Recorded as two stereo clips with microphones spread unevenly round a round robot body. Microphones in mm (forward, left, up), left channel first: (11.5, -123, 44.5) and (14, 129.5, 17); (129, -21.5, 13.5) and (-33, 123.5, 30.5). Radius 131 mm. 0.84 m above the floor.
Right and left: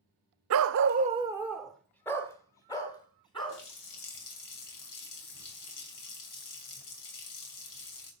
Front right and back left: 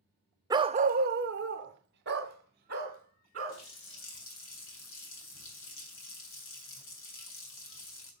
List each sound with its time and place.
0.5 s a dog barking: 75° left, 0.6 m; by 3.6 s 165° right, 3 m
3.5 s a running tap: 85° right, 3.5 m